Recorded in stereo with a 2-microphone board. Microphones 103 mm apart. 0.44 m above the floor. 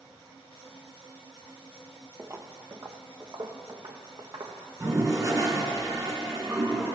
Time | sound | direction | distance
2.2 | footsteps | 25° right (ahead or behind) | 0.7 m
4.8 | a toilet flushing | 35° right (ahead or behind) | 1.8 m